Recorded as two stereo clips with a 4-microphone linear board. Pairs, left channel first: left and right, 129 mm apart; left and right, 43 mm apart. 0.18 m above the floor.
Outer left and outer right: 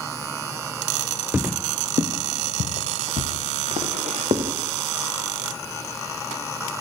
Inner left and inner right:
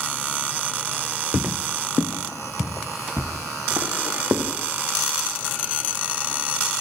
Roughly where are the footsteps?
Centre.